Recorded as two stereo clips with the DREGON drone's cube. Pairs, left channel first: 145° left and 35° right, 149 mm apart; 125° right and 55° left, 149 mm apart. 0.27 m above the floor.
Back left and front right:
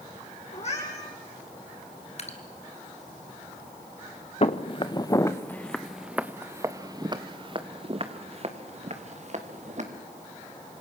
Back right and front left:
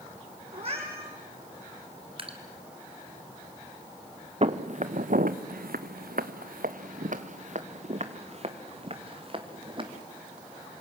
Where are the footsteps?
100° left, 1.4 m; by 9.8 s straight ahead, 3 m.